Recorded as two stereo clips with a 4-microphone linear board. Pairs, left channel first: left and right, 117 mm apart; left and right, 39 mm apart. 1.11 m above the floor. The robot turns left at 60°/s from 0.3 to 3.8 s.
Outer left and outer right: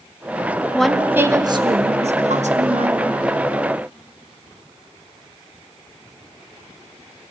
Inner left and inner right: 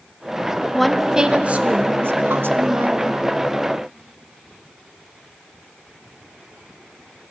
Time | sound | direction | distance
0.7 | a woman speaking | 10° left | 1.0 m